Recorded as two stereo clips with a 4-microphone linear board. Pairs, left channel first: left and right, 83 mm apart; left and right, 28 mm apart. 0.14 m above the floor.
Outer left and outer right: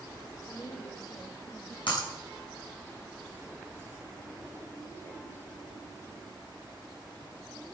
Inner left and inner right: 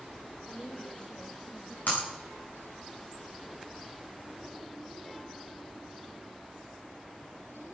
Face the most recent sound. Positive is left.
turn(degrees=80)